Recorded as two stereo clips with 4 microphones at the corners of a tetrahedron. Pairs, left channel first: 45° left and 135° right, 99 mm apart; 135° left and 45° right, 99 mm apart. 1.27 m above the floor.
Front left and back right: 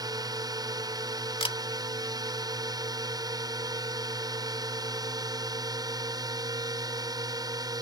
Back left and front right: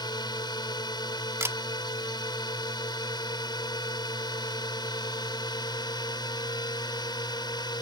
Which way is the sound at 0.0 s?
Straight behind.